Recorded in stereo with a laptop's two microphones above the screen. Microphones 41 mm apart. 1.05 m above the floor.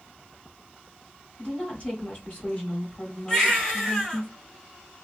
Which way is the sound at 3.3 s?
20° left (ahead or behind).